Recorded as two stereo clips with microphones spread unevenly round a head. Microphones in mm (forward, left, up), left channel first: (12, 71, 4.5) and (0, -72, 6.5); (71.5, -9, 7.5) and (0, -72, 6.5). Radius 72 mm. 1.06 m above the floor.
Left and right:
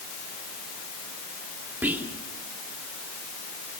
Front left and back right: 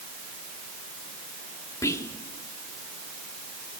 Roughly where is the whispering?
Ahead.